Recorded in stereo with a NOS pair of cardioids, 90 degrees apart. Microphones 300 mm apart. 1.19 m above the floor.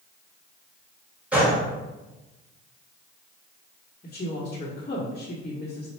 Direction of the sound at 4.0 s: 25° left.